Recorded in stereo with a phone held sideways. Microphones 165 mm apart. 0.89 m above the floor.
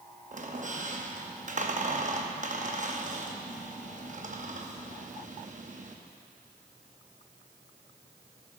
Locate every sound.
0.3 s a squeak: 50° right (ahead or behind), 0.8 m